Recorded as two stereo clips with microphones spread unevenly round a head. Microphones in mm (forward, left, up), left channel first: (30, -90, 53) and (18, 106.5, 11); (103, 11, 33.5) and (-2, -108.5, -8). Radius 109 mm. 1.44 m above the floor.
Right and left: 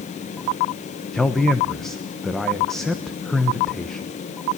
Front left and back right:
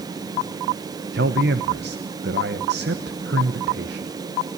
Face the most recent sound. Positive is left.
turn(degrees=-175)